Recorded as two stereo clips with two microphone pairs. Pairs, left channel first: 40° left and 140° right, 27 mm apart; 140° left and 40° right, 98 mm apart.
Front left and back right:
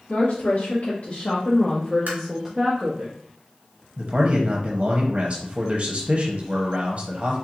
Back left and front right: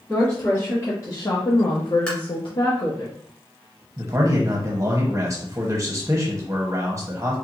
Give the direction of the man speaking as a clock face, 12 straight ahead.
3 o'clock.